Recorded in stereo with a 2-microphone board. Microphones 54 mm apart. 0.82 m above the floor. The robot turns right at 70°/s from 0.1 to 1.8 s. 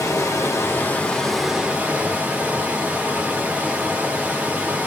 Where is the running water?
90° left, 0.9 m; by 4.9 s 155° right, 0.9 m.